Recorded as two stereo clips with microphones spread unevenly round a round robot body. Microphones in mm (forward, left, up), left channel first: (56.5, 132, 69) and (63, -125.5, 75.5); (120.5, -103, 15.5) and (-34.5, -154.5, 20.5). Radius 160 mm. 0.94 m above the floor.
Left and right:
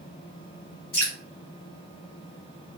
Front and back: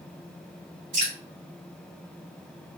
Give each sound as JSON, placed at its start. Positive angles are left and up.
{"t": 0.9, "sound": "dripping", "azimuth_deg": 150, "distance_m": 2.5}